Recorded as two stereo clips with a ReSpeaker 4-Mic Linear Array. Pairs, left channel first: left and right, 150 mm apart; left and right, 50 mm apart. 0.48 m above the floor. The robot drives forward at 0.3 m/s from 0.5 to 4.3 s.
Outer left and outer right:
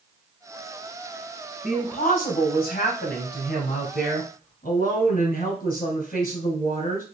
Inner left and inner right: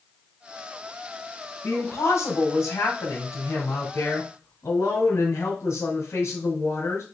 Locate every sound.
1.6 s a woman speaking: 70° left (ahead or behind), 2 m